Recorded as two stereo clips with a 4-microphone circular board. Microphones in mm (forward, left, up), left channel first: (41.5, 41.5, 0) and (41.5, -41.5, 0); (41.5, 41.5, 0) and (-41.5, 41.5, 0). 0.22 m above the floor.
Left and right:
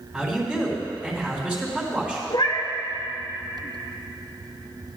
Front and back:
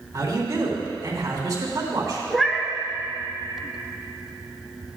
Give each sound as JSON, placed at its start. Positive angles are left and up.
{"t": 0.1, "sound": "a man speaking", "azimuth_deg": -160, "distance_m": 2.5}
{"t": 2.3, "sound": "a cat meowing", "azimuth_deg": 90, "distance_m": 1.0}